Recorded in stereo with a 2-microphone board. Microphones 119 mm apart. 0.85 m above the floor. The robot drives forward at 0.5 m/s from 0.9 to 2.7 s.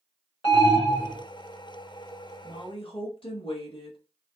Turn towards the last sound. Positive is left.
turn(degrees=50)  # may be behind; listen again after turning